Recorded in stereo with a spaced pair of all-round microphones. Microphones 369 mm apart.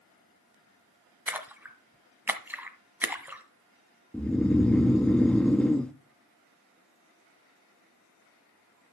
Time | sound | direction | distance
1.3 | a splash | 5° right (ahead or behind) | 1.4 m
4.1 | snoring | 5° left (ahead or behind) | 0.5 m